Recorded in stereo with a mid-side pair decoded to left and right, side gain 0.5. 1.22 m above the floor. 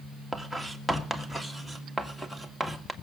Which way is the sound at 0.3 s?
Straight ahead.